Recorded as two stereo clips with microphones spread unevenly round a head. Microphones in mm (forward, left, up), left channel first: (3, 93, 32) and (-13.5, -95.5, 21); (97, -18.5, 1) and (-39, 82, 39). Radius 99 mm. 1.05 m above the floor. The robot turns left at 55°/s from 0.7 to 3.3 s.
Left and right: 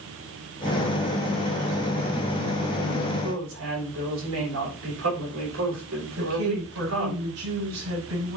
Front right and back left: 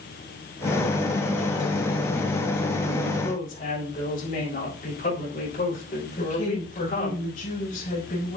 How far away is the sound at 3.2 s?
About 6.5 m.